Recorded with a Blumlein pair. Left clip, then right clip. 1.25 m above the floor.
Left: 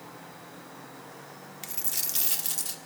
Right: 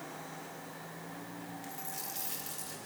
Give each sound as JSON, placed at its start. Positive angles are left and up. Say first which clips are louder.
{"t": 1.6, "sound": "a dropped coin", "louder": "left 10 dB", "azimuth_deg": 45, "distance_m": 1.6}